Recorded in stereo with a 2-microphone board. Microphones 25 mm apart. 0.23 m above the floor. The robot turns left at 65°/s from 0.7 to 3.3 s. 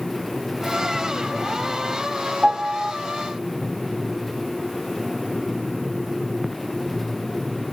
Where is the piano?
75° right, 1.0 m; by 2.9 s 110° right, 1.0 m.